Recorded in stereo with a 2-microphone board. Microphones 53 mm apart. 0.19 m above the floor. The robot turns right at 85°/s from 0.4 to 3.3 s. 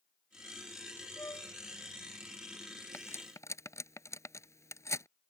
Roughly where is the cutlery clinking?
Left.